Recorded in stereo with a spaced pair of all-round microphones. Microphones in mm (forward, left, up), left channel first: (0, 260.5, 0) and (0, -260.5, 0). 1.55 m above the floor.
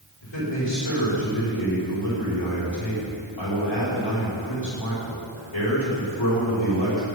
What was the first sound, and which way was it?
A man speaking, 60° left (ahead or behind).